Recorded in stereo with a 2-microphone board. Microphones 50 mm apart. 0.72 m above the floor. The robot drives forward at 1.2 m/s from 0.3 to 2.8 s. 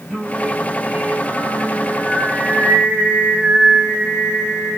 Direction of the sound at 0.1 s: 10° right (ahead or behind).